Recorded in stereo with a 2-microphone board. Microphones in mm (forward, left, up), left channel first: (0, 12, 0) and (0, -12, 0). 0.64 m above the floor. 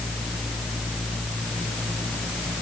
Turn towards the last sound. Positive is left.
No sound to turn to.